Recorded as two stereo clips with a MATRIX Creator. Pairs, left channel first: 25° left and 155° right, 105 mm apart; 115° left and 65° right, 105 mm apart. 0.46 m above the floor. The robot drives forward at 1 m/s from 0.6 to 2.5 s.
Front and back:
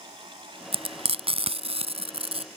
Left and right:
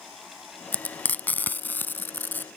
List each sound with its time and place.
0.7 s frying: 175° right